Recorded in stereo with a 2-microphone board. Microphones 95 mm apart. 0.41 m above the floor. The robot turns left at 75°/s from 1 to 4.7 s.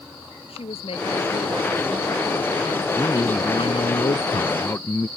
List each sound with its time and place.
0.5 s a woman speaking: 90° left; by 2.8 s 50° right
2.9 s a man speaking: 155° left; by 5.1 s 25° left